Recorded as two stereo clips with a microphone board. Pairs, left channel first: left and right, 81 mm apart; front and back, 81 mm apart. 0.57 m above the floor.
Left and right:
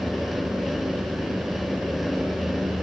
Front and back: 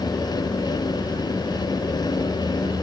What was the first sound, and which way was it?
Only background noise.